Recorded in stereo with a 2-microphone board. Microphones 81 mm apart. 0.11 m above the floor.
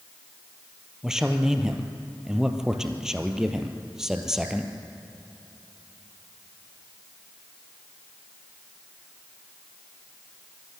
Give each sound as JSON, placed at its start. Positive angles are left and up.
{"t": 1.0, "sound": "a man speaking", "side_deg": -5, "distance_m": 2.5}